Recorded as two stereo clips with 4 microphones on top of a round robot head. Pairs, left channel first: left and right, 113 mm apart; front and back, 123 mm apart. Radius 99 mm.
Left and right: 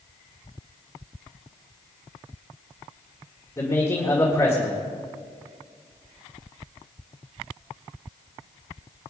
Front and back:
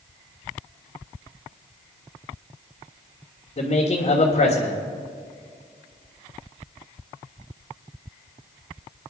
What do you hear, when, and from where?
3.6 s a man speaking: 20° left, 1.9 m